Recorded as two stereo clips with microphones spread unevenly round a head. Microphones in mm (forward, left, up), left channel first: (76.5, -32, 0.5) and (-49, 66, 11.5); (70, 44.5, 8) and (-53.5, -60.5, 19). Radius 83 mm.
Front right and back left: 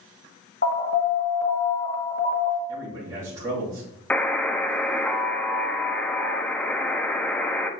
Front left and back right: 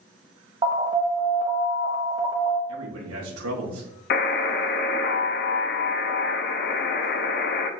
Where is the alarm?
75° right, 1.2 m.